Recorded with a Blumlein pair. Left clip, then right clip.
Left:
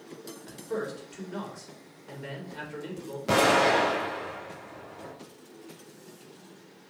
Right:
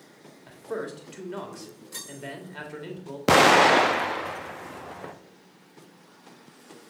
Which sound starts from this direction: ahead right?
An explosion, at 3.3 s.